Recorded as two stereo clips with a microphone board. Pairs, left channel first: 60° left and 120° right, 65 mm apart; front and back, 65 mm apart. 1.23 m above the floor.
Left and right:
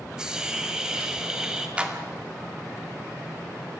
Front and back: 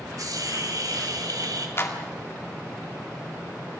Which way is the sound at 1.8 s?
50° right.